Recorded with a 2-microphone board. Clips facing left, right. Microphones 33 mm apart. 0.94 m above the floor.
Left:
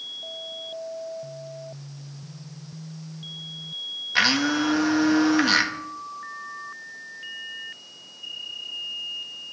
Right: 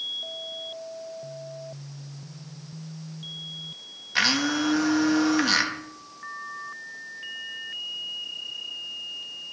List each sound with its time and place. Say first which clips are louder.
4.2 s a blender: left 2 dB; 10° left (ahead or behind), 1.5 m